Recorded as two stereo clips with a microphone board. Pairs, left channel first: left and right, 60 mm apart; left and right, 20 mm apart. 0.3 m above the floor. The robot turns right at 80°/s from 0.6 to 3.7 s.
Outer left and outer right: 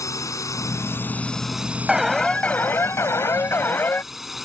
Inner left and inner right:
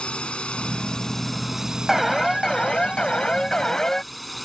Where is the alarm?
15° right; by 4.0 s 130° left.